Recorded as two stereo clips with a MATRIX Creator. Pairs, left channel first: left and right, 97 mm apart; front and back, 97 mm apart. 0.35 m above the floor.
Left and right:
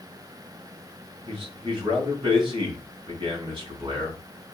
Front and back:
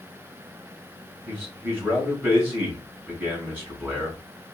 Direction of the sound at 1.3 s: 110° right.